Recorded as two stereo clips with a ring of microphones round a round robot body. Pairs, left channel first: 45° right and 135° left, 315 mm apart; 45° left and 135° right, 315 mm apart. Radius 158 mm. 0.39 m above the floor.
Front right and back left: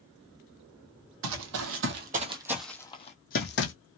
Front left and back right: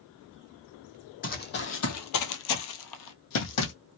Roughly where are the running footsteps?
Left.